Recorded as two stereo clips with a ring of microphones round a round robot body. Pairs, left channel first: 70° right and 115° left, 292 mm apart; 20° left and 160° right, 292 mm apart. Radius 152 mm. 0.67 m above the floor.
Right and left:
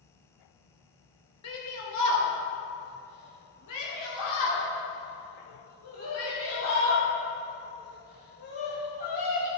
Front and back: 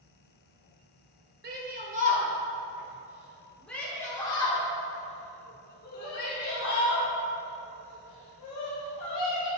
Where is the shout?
100° right, 2 m; by 9.5 s 10° right, 4.5 m.